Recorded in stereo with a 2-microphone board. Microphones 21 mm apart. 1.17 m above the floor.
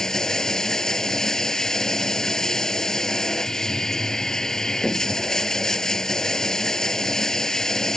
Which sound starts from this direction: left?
Running water, at 0.0 s.